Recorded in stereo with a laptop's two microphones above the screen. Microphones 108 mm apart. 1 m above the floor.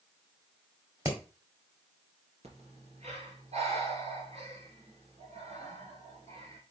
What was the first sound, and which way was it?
Hammering, 35° right (ahead or behind).